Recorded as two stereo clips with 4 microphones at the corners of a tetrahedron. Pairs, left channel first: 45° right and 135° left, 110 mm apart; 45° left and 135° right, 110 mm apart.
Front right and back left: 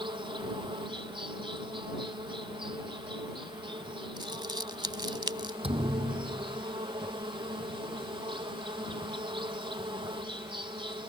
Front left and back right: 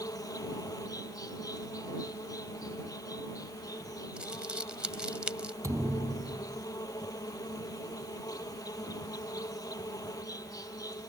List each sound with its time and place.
0.0 s an insect: 100° left
4.2 s crumpling: 150° left
5.6 s a thud: 165° left